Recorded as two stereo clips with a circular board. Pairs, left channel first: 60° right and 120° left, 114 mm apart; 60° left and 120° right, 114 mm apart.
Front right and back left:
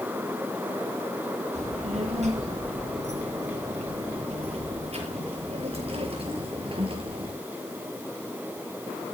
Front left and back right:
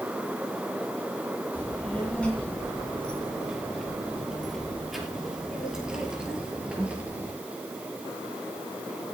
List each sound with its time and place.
1.5 s a child speaking: 140° left, 7.5 m; by 7.3 s 165° left, 5.5 m